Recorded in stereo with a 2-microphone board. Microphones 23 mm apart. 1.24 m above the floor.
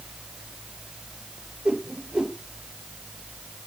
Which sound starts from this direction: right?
A whoosh, at 1.6 s.